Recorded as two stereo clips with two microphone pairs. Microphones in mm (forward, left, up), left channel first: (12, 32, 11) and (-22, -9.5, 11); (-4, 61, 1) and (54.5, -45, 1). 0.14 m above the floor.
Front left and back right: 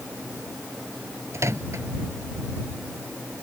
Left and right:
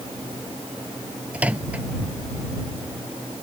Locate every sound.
1.3 s a microwave: 140° right